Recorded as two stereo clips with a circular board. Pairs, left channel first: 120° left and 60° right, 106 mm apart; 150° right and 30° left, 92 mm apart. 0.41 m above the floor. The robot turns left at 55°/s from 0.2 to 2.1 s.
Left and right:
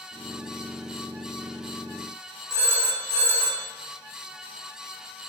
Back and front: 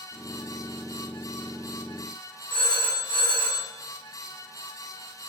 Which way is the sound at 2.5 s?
55° left.